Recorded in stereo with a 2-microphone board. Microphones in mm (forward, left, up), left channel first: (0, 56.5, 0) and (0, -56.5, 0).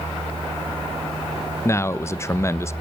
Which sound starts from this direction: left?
A man speaking, at 1.6 s.